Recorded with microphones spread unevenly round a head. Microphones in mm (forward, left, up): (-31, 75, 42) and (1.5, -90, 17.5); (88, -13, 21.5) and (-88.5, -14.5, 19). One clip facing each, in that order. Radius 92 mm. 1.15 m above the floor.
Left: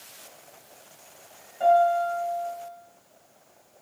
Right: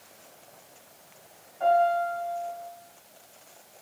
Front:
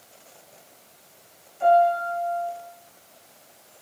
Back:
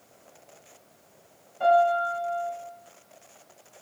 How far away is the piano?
About 4 m.